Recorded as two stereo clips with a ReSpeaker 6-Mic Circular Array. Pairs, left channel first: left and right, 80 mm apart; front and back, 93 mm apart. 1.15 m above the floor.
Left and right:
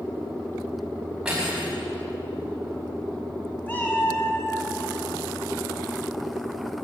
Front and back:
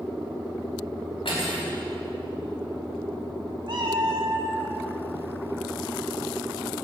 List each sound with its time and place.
1.2 s cutlery clinking: 10° right, 5 m
3.7 s a cat meowing: 155° left, 1.7 m